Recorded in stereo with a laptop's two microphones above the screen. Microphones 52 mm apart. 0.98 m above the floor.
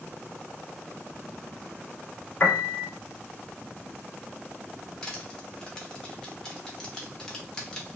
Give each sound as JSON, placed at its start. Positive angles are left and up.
{"t": 2.4, "sound": "a piano", "side_deg": 35, "distance_m": 1.2}
{"t": 5.0, "sound": "crushing", "side_deg": 15, "distance_m": 1.1}